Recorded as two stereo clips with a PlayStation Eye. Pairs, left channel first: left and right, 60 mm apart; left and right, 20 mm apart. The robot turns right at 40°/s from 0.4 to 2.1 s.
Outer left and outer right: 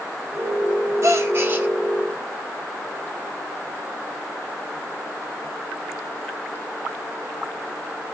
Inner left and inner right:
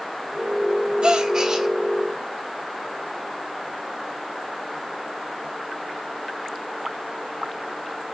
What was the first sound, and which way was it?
A gasp, 50° right (ahead or behind).